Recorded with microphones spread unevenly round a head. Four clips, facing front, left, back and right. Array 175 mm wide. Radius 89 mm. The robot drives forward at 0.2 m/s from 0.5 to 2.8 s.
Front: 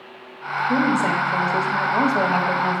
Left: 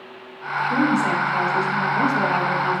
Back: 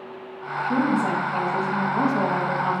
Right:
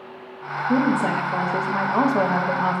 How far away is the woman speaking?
About 1.2 m.